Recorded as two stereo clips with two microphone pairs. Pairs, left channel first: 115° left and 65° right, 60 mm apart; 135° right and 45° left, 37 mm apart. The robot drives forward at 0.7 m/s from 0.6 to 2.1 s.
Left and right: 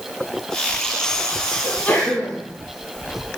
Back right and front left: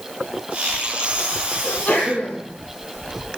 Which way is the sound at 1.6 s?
170° left.